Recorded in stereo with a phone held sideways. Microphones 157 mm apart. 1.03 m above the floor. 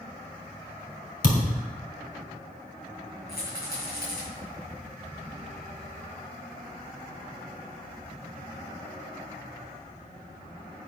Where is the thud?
75° left (ahead or behind), 2.5 m.